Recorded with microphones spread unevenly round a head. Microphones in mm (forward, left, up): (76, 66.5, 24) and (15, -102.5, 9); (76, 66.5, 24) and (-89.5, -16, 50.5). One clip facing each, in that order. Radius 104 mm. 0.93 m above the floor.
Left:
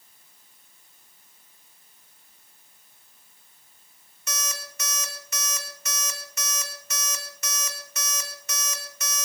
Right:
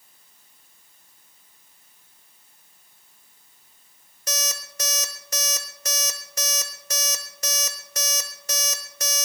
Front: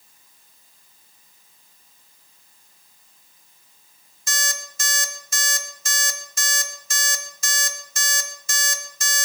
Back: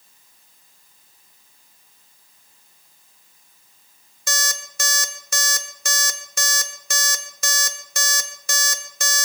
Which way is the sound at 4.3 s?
175° right.